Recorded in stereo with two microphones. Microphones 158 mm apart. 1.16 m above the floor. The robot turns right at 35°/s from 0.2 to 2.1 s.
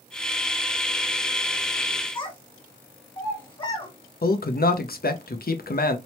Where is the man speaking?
65° left (ahead or behind), 0.6 m.